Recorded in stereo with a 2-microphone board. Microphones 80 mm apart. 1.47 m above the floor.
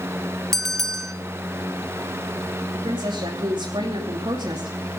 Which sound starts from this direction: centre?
A bell, at 0.5 s.